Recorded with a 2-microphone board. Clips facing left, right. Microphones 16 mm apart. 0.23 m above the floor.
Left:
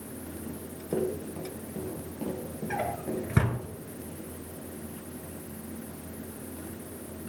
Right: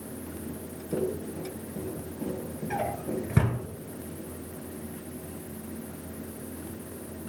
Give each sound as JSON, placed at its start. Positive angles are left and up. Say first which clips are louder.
{"t": 0.5, "sound": "running footsteps", "louder": "left 1 dB", "side_deg": 55, "distance_m": 3.5}
{"t": 2.7, "sound": "a drawer", "louder": "right 1 dB", "side_deg": 15, "distance_m": 1.4}